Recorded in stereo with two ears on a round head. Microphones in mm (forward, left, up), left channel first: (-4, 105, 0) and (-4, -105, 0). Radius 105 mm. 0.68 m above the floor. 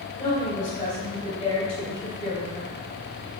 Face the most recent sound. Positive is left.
turn(degrees=15)  # may be behind; listen again after turning